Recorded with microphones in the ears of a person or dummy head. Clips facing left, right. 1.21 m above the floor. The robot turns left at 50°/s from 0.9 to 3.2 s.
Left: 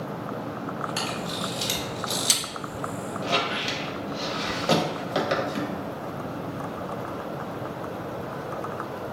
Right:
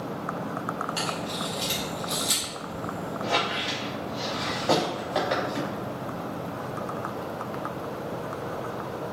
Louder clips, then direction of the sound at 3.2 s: Left 1 dB; 35° left (ahead or behind).